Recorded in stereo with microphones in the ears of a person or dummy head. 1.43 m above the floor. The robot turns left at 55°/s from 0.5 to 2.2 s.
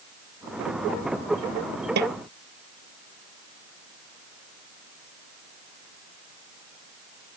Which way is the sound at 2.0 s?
55° right (ahead or behind).